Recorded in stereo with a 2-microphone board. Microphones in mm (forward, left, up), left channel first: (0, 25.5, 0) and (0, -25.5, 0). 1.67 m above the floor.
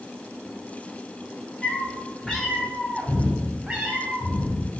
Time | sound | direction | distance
1.6 | a cat meowing | 20° left (ahead or behind) | 2 m